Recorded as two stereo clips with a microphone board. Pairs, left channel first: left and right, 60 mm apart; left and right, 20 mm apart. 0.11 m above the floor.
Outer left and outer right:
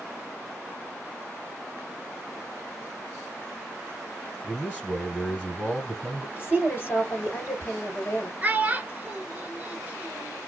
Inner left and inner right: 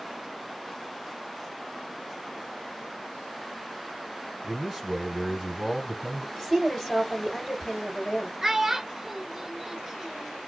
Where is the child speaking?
25° right (ahead or behind), 0.9 m.